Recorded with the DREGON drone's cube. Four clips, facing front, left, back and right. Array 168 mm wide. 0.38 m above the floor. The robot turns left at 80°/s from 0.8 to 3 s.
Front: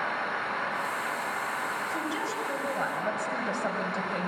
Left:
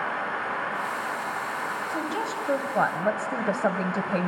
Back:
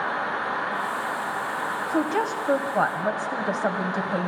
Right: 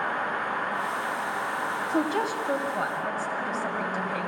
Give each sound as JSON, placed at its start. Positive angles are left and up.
{"t": 1.9, "sound": "a woman speaking", "azimuth_deg": -145, "distance_m": 1.8}